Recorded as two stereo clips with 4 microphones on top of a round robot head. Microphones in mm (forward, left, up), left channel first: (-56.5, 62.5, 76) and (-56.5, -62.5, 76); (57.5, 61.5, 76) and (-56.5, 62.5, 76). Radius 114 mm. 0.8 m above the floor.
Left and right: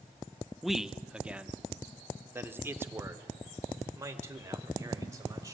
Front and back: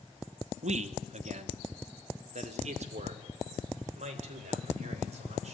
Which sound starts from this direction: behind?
A man speaking, at 0.6 s.